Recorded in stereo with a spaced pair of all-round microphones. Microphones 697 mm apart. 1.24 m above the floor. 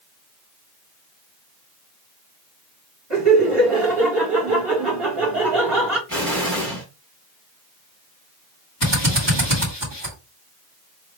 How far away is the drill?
About 2 m.